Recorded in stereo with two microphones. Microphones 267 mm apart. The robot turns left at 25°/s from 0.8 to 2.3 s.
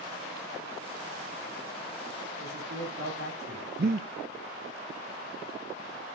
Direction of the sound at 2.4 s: 50° right (ahead or behind).